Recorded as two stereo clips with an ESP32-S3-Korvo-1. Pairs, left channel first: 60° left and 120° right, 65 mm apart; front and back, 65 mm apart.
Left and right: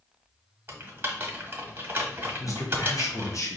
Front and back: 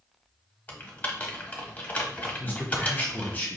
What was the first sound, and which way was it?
Typing on a keyboard, 65° right.